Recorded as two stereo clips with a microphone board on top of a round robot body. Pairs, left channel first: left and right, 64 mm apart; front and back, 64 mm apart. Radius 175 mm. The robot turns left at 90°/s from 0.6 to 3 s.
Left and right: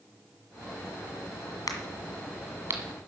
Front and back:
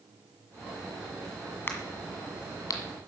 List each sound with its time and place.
1.7 s a crack: 60° left, 1.6 m; by 2.8 s 45° right, 1.6 m